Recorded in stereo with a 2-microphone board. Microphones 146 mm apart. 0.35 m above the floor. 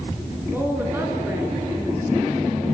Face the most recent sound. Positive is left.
turn(degrees=-15)  # may be behind; listen again after turning